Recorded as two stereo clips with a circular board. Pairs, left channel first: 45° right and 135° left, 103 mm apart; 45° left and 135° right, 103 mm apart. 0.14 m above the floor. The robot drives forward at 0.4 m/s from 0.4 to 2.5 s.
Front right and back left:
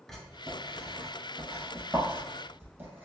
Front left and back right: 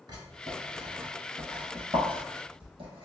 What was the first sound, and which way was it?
Writing, 125° right.